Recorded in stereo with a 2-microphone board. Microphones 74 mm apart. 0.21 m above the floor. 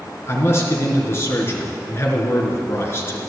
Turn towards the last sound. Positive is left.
turn(degrees=35)  # may be behind; listen again after turning